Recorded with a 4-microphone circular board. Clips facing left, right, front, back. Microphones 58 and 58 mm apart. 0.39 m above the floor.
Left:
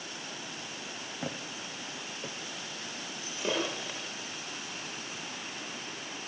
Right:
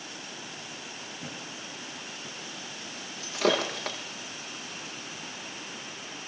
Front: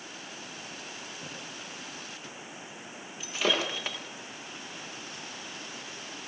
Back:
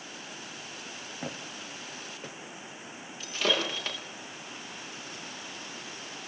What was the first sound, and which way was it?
Footsteps, 130° left.